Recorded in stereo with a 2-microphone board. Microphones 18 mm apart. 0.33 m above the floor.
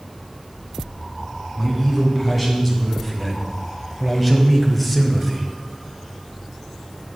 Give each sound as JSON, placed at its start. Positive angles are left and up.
{"t": 1.6, "sound": "a man speaking", "side_deg": 0, "distance_m": 3.0}